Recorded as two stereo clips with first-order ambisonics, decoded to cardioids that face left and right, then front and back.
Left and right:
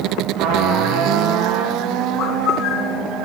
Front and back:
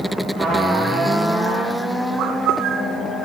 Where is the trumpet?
90° right, 5.5 m.